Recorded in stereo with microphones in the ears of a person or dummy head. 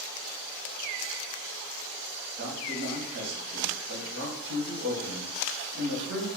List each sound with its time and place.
2.4 s a man speaking: 60° right (ahead or behind), 0.9 m